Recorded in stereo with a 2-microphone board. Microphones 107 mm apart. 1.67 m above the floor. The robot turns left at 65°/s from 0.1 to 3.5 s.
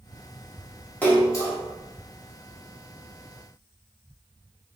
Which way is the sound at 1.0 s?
15° left (ahead or behind).